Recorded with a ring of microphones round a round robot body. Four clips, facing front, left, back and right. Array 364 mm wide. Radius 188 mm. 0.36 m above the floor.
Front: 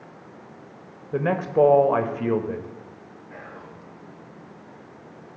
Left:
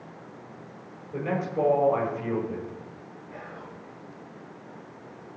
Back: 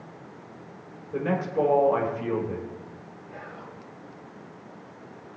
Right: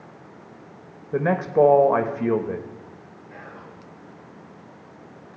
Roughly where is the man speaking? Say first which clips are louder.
Right 8 dB, front 5 dB; ahead right.